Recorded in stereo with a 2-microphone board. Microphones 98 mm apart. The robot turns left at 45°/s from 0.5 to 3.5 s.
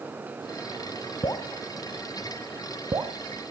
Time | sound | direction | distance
1.2 | dripping | 40° left (ahead or behind) | 0.5 m